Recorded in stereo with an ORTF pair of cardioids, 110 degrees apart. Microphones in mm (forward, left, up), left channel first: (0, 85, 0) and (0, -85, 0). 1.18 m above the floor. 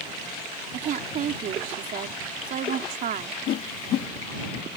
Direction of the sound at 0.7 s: 55° right.